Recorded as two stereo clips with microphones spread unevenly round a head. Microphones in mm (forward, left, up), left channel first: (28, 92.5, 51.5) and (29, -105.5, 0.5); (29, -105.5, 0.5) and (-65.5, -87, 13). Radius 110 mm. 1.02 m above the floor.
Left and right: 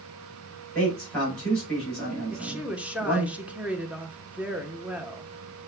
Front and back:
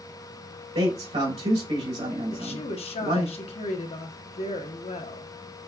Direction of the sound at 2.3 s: 10° right.